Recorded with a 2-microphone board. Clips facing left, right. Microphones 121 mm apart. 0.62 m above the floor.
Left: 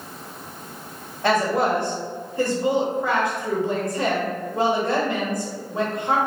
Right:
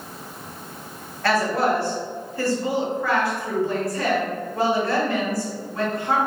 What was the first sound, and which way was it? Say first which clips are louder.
A woman speaking: left 1 dB; 20° left (ahead or behind).